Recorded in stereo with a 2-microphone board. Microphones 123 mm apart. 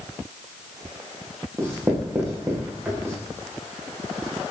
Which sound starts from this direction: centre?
Writing, at 1.6 s.